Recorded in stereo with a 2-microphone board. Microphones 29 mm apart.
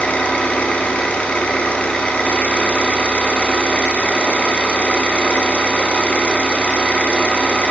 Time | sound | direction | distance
0.0 | an engine running | 55° left (ahead or behind) | 1.0 m